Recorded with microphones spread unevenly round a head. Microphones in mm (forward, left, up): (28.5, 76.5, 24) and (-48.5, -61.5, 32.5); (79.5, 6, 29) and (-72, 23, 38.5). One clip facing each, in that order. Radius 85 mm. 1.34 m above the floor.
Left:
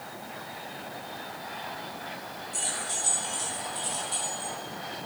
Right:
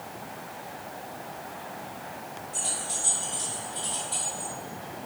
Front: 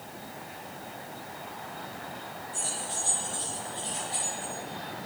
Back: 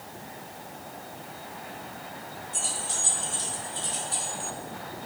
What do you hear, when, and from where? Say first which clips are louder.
2.5 s keys jangling: even, back 1 dB; 130° left, 2.5 m; by 4.5 s 145° left, 3.5 m